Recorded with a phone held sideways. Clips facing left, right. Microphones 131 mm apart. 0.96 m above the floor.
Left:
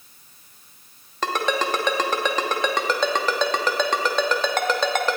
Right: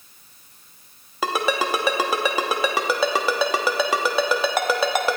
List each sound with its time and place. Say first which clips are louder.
1.2 s a ringtone: right 1 dB; 10° right (ahead or behind), 0.8 m